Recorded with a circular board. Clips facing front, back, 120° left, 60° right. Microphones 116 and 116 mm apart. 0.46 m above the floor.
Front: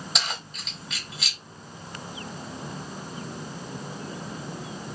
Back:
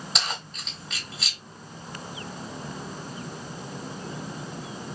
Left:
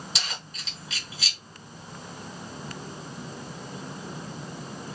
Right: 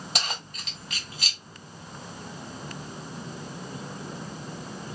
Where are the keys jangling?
90° right, 1.5 m.